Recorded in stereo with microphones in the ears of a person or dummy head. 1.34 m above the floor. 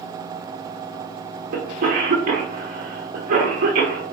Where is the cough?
40° right (ahead or behind), 1.0 m.